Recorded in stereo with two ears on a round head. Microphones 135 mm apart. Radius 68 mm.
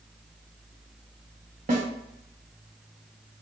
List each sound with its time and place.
1.7 s a snare drum: 55° right (ahead or behind), 0.8 m